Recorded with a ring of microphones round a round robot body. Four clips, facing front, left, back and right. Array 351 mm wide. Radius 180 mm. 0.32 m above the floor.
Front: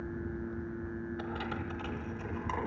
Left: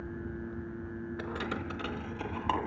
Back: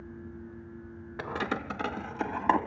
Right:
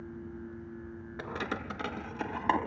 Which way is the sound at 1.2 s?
175° right.